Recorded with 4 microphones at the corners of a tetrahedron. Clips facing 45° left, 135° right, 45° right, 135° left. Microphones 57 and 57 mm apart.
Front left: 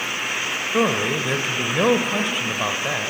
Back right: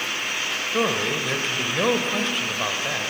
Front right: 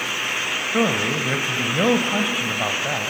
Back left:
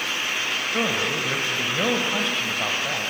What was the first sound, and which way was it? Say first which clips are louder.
A man speaking: front left 3 dB, front right 5 dB; 10° right.